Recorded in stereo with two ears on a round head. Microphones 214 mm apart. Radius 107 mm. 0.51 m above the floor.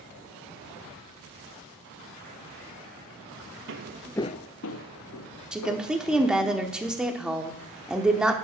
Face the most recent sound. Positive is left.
turn(degrees=-5)  # may be behind; listen again after turning